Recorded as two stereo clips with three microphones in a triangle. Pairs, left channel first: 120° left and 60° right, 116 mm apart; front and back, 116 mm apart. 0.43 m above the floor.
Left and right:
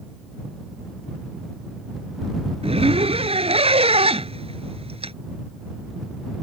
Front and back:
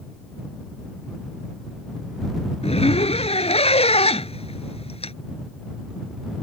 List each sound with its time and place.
2.6 s a zipper: 30° right